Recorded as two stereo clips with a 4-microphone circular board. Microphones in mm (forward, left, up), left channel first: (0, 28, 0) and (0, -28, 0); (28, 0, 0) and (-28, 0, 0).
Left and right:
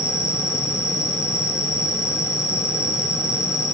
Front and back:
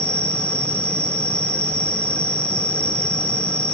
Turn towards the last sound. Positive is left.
turn(degrees=70)